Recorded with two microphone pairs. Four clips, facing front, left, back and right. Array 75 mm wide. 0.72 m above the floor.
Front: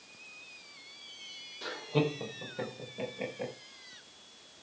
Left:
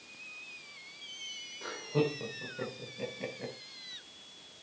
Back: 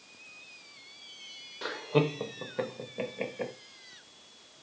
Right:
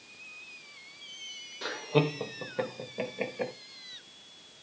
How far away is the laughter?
About 3.5 m.